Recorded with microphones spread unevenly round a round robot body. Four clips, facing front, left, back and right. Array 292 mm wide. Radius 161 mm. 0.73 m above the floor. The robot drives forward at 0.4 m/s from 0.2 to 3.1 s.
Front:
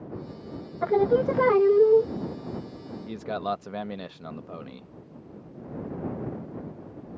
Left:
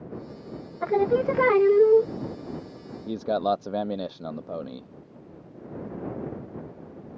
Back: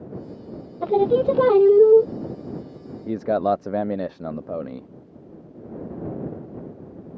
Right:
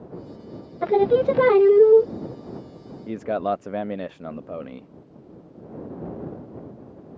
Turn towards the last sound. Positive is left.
turn(degrees=180)